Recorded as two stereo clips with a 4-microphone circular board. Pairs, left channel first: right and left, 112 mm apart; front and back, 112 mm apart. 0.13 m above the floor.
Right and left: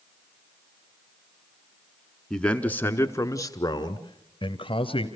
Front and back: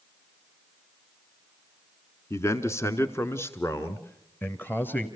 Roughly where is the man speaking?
Ahead.